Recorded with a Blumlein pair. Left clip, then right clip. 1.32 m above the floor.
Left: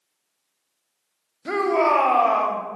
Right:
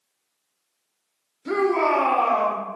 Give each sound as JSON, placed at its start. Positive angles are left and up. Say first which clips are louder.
{"t": 1.4, "sound": "a shout", "louder": "left 1 dB", "azimuth_deg": 20, "distance_m": 0.7}